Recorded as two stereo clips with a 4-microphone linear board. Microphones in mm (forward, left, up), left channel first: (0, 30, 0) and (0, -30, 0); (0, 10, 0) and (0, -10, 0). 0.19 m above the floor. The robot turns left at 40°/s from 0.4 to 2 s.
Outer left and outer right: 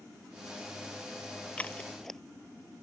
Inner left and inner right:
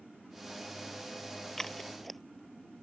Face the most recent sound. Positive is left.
turn(degrees=5)  # may be behind; listen again after turning